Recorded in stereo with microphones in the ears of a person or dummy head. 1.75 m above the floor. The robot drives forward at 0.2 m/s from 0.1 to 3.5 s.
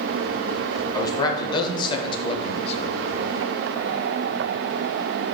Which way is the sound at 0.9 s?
20° left (ahead or behind).